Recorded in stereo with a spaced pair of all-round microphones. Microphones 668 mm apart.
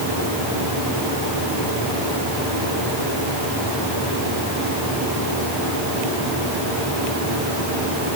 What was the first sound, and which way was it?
Only background noise.